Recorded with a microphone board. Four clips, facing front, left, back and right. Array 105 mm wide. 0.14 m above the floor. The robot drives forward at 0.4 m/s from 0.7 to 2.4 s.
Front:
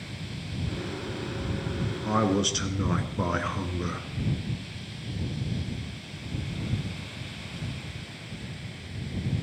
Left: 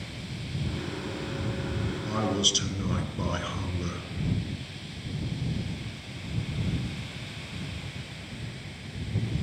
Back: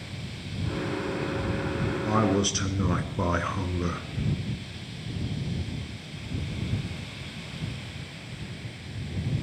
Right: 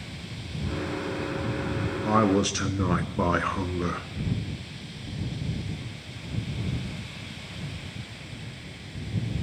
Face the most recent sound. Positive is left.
turn(degrees=-95)